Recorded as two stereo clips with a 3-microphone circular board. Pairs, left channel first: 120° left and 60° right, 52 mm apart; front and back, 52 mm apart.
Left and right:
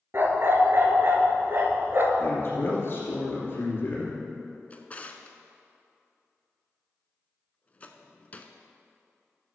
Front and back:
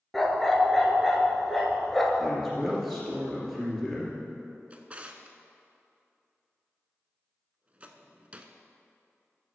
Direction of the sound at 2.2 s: 95° left.